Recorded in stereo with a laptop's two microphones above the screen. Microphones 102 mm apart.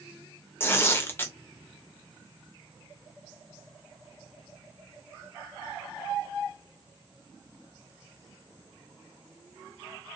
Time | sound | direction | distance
0.6 | tearing paper | 20° left (ahead or behind) | 0.5 m